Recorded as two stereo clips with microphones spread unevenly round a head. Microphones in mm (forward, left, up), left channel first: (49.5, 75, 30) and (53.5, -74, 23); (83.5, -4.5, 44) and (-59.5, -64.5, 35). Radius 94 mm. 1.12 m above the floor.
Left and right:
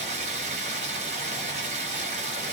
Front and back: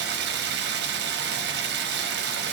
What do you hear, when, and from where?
0.0 s running water: 145° right, 0.7 m